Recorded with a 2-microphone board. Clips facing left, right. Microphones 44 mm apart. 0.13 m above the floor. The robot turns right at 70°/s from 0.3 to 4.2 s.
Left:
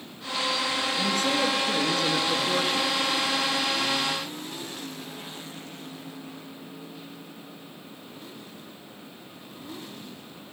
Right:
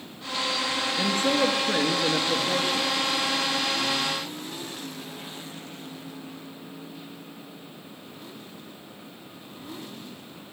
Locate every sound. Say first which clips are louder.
1.0 s a man speaking: right 3 dB; 95° right, 1.3 m; by 2.9 s 40° left, 1.3 m